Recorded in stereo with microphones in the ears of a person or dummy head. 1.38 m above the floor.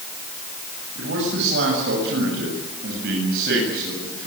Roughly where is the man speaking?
Right.